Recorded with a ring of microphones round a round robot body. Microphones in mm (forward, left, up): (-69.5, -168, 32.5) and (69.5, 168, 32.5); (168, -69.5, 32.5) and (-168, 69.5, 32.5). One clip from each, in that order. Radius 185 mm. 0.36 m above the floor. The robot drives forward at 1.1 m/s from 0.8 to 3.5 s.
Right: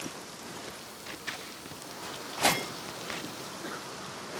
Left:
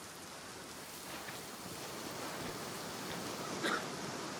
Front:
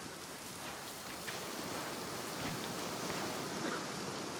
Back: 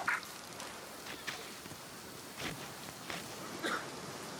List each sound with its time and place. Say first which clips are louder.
1.1 s scissors: right 8 dB, even; 140° right; by 3.3 s 145° right
3.4 s a sneeze: left 2 dB, back 1 dB; 115° left